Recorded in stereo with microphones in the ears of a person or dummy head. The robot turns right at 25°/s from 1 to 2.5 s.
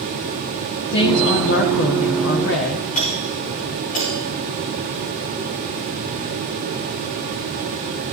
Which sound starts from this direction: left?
A doorbell, at 3.0 s.